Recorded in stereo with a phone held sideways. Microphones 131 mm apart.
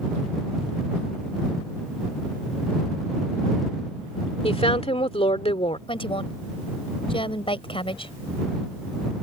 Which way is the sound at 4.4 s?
45° left (ahead or behind).